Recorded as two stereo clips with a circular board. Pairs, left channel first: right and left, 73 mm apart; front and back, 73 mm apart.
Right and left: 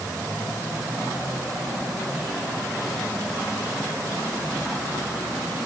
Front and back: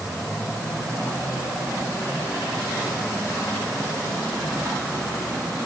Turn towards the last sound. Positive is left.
No sound to turn to.